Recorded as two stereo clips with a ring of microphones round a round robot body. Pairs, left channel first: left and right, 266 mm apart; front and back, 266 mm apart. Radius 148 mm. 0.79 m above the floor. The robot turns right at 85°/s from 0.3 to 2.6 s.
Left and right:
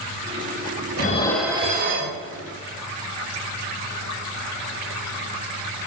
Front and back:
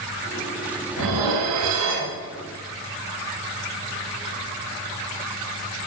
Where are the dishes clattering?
145° left, 2.5 m; by 2.2 s 115° right, 2.5 m.